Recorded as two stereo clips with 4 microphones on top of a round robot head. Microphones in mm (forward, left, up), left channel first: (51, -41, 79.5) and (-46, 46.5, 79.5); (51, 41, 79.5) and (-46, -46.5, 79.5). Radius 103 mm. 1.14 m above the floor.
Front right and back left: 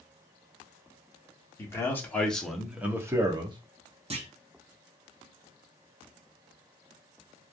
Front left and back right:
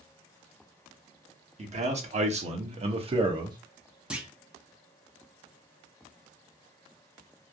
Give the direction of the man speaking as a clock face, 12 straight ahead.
4 o'clock.